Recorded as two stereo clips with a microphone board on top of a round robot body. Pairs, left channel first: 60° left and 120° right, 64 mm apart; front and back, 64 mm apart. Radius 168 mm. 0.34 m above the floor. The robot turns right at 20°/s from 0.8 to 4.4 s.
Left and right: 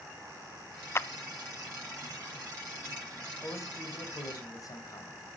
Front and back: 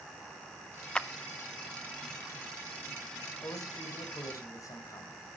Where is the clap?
70° left, 1.0 m.